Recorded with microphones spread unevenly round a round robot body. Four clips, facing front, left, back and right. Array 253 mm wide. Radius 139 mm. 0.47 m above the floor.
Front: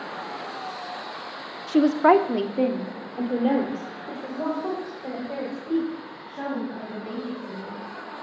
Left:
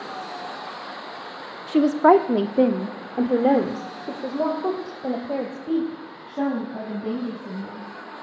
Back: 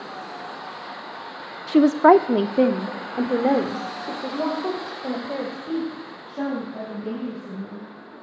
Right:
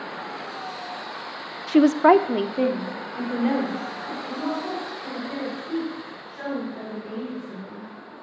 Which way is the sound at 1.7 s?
125° right.